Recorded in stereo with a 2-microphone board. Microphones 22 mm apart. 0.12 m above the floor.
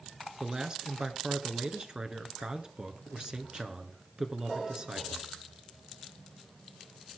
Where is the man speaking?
30° right (ahead or behind), 1.7 m.